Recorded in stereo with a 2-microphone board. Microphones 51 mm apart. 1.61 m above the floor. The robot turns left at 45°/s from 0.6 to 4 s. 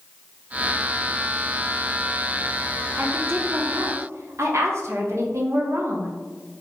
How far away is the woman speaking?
About 0.9 m.